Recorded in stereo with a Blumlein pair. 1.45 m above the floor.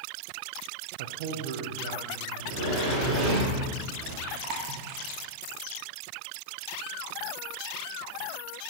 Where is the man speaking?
55° right, 0.5 m; by 2.3 s 45° right, 1.8 m.